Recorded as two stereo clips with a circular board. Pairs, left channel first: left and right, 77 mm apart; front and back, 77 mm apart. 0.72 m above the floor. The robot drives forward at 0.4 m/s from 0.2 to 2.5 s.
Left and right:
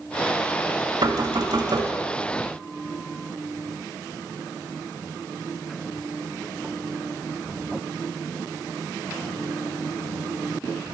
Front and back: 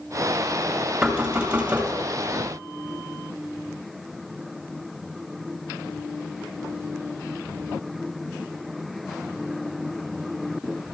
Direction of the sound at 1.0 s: 105° right.